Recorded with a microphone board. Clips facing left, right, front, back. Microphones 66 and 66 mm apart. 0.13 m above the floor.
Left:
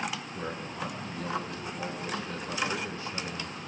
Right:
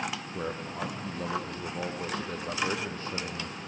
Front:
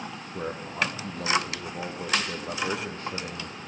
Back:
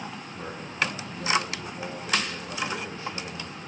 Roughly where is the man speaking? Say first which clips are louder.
Right 2 dB, front 2 dB; ahead right.